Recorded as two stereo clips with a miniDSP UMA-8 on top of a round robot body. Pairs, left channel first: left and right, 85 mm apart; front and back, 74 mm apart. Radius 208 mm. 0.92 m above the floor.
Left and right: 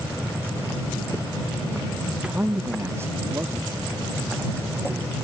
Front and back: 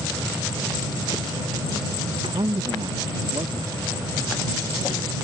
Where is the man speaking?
Straight behind; by 5.1 s 145° right.